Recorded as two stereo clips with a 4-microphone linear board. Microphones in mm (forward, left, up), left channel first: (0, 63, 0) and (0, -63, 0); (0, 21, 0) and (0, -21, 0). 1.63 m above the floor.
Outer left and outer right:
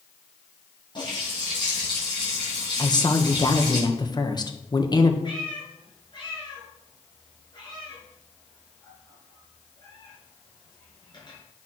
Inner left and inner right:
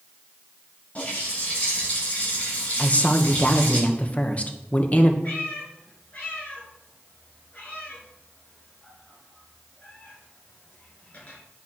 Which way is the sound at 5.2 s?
40° left (ahead or behind).